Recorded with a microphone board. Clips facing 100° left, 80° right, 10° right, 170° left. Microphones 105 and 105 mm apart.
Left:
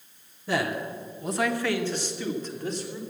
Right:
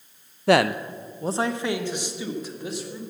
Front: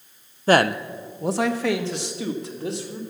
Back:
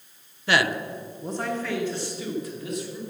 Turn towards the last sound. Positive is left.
turn(degrees=5)